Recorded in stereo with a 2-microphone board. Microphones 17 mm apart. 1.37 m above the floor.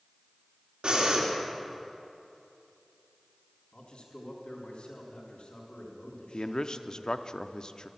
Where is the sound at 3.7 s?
85° left, 3.5 m.